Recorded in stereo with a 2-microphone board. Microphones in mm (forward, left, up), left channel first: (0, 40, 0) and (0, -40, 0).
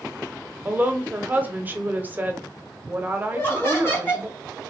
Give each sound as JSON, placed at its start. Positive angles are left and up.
{"t": 0.7, "sound": "a woman speaking", "side_deg": -25, "distance_m": 1.0}
{"t": 3.3, "sound": "laughter", "side_deg": 25, "distance_m": 2.5}